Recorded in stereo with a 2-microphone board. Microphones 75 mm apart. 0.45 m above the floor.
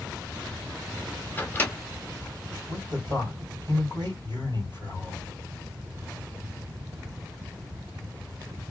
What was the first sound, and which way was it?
A microwave, 25° left (ahead or behind).